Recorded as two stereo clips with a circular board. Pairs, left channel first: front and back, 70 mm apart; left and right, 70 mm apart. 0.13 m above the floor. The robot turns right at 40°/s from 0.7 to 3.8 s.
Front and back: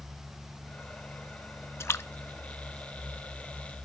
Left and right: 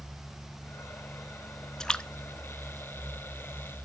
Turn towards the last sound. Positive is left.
turn(degrees=95)